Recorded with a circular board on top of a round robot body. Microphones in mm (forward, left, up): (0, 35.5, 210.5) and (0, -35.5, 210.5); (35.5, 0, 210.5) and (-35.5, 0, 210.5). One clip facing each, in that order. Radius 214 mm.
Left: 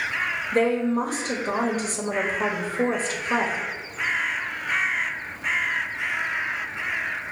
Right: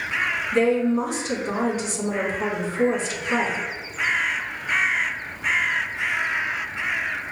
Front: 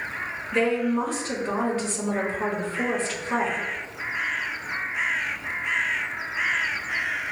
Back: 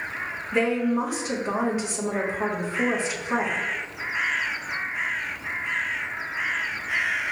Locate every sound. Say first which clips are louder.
0.5 s a woman speaking: right 2 dB, even; 110° left, 1.3 m